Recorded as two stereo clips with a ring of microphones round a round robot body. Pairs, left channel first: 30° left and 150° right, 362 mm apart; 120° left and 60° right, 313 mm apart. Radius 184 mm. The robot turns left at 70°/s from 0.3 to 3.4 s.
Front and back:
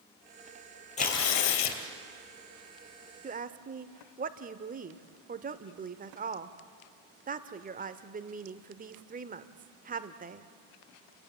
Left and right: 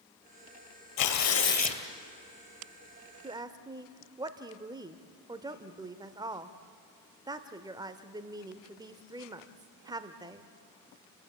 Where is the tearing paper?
105° left, 2.5 m; by 1.8 s 45° left, 2.5 m.